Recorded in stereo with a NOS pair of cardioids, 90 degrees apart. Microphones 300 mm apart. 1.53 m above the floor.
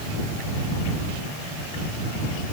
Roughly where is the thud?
I don't hear a thud.